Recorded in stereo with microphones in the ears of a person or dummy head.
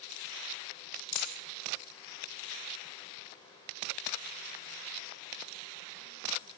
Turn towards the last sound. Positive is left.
turn(degrees=60)  # may be behind; listen again after turning